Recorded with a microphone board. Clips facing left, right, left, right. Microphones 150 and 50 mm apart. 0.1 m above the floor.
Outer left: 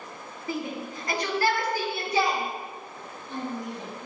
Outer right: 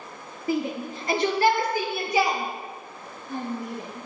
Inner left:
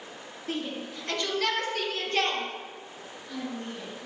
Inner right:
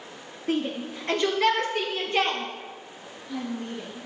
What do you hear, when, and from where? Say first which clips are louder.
0.5 s a shout: outer right 6 dB, inner right 6 dB; 30° right (ahead or behind), 1.2 m; by 4.1 s 5° right (ahead or behind), 3.5 m